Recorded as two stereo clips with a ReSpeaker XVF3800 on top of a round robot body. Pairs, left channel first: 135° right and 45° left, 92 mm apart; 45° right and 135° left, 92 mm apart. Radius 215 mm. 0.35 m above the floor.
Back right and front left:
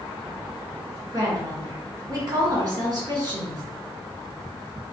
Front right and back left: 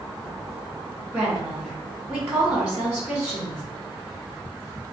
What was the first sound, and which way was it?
A woman speaking, 75° left.